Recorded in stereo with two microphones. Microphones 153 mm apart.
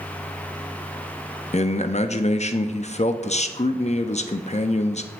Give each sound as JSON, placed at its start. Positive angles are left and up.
{"t": 1.5, "sound": "a man speaking", "side_deg": 45, "distance_m": 0.6}